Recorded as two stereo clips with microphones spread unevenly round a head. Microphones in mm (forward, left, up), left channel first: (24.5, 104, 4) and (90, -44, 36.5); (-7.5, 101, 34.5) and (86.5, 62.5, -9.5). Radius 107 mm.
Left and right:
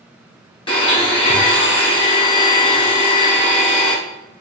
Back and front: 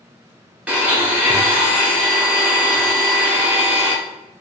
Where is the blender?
55° left, 1.4 m.